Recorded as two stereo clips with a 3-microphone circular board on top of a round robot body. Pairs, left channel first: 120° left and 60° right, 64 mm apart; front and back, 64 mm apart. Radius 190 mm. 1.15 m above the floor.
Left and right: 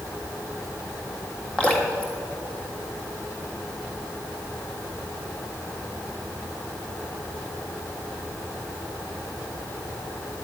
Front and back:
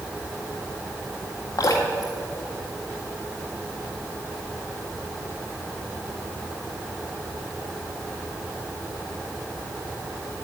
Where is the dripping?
45° left, 1.6 m.